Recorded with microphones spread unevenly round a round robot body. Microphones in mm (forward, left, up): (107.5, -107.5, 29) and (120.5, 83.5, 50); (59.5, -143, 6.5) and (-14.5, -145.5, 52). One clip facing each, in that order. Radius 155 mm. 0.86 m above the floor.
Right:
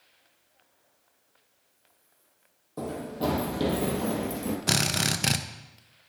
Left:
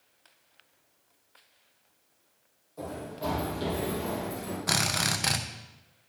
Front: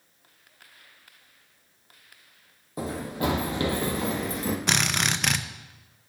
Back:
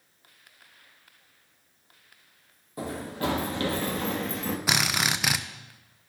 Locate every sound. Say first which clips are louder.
2.8 s running footsteps: right 5 dB, front 2 dB; 75° right, 2 m; by 4.6 s 100° right, 1.3 m
4.7 s a drill: right 3 dB, back 3 dB; 55° right, 0.6 m